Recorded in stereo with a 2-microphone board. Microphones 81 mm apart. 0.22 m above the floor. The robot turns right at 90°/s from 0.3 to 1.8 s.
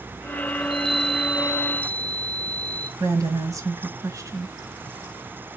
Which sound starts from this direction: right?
A woman speaking, at 3.0 s.